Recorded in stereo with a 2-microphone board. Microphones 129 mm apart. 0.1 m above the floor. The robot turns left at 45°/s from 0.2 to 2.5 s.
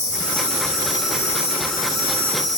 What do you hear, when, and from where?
0.0 s an insect: 110° left, 6.5 m; by 2.6 s 10° left, 6.5 m